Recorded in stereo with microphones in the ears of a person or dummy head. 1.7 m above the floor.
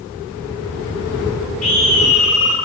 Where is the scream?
40° left (ahead or behind), 4.5 m.